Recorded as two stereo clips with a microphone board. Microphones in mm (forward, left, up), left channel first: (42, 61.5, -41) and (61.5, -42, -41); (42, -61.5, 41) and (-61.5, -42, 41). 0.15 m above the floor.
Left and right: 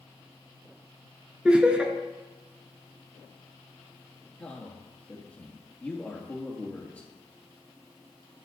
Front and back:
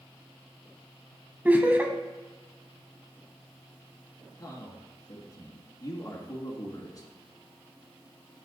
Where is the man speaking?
30° left, 2.5 m.